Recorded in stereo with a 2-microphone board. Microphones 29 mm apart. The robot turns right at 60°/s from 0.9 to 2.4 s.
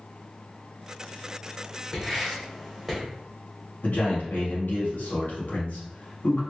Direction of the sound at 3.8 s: 80° left.